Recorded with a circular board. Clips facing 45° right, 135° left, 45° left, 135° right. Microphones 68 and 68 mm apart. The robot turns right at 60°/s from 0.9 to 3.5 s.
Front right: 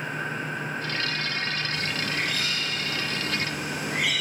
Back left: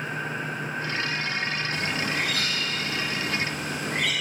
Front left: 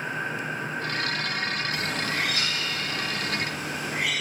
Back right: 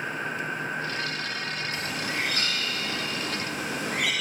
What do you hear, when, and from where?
1.7 s a bird: 125° left, 3.5 m; by 4.1 s 125° right, 3.5 m